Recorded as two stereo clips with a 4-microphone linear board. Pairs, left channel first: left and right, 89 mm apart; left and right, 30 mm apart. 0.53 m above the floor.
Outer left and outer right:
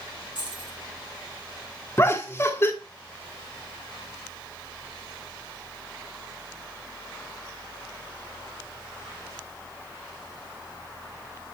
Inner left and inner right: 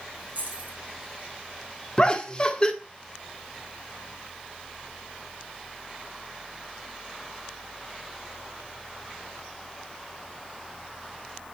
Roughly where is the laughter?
Left.